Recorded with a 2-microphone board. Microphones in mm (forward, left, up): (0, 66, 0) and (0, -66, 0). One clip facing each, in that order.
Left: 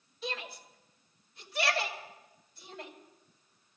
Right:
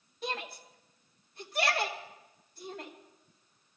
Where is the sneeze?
I don't hear a sneeze.